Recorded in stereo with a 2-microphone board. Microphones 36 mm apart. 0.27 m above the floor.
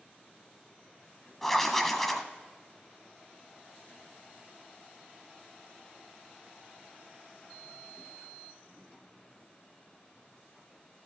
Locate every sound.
1.4 s writing: 5° left (ahead or behind), 1.1 m